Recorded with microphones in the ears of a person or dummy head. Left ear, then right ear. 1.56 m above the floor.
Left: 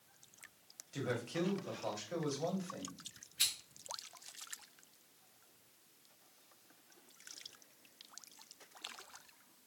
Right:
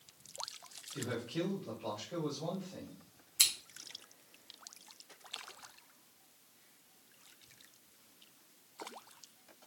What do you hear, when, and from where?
0.9 s a man speaking: 60° left (ahead or behind), 1.0 m
3.4 s scissors: 70° right (ahead or behind), 0.9 m